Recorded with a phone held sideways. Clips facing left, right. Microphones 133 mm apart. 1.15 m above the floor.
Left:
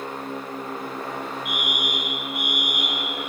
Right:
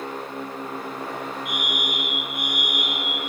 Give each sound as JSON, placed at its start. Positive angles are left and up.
{"t": 1.4, "sound": "a fire alarm", "side_deg": 60, "distance_m": 6.0}